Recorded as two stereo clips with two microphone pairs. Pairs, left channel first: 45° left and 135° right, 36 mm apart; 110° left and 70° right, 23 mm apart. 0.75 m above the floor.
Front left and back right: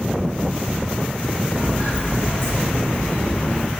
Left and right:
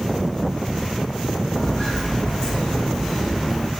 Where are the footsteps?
70° left, 1.9 m; by 3.7 s 5° left, 0.8 m.